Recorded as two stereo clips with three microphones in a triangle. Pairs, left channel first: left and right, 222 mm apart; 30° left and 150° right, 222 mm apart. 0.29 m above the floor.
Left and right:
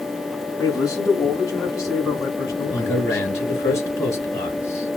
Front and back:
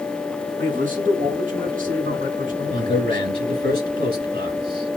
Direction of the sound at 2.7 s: 170° left.